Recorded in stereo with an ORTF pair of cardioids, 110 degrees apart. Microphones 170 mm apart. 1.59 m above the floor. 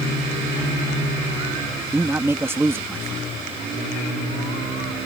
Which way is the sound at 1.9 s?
15° right.